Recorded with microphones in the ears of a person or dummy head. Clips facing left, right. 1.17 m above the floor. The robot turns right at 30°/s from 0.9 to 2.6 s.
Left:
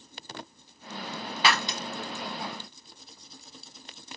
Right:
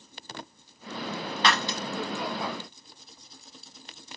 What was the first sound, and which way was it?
Breaking glass, 10° left (ahead or behind).